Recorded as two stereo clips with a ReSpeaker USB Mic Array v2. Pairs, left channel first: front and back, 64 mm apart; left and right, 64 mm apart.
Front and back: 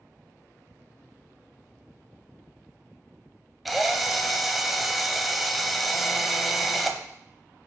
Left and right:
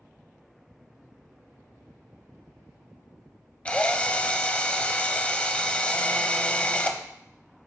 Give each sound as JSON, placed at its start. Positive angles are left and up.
{"t": 3.6, "sound": "a drill", "azimuth_deg": 95, "distance_m": 0.6}